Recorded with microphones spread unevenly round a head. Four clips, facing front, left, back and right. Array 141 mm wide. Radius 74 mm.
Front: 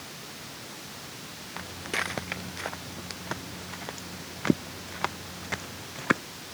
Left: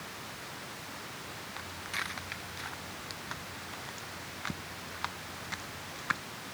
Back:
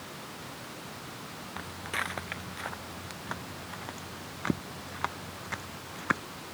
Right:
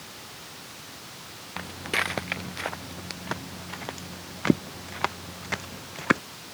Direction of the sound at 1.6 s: 70° right.